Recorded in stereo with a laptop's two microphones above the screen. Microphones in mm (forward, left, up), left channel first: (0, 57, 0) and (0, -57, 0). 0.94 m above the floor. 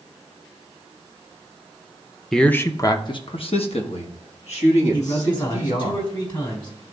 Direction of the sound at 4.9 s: 40° left (ahead or behind).